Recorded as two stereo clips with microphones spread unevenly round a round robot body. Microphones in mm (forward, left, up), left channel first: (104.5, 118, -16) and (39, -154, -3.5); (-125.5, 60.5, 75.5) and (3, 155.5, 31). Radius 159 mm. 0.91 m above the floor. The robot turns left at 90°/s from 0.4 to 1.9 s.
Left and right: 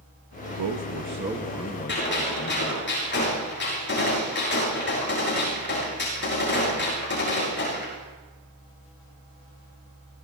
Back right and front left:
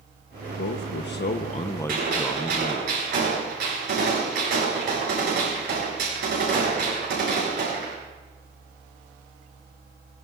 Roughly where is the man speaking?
Behind right.